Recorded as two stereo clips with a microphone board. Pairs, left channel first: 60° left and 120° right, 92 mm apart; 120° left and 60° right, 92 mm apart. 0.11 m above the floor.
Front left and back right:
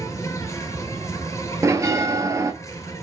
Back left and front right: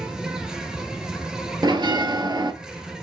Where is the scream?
No scream in this recording.